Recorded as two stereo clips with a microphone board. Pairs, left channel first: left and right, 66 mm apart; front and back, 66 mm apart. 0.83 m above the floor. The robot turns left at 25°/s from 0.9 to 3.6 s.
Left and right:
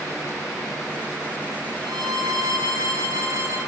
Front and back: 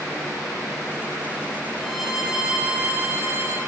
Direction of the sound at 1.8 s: 90° right.